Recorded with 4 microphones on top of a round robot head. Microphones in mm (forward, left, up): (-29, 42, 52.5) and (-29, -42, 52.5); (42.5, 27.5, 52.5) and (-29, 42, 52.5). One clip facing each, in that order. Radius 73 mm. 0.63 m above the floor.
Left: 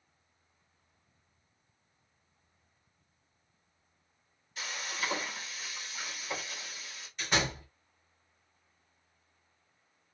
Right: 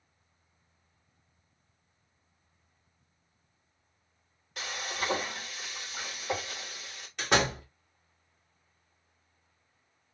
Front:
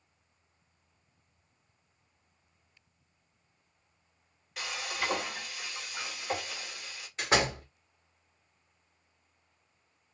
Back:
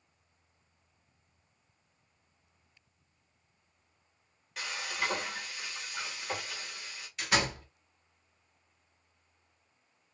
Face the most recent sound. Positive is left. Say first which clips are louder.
# right 5 dB, front 3 dB
turn(degrees=-70)